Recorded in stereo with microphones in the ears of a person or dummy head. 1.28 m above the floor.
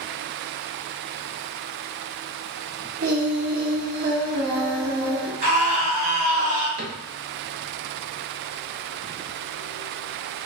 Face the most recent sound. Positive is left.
turn(degrees=-55)  # may be behind; listen again after turning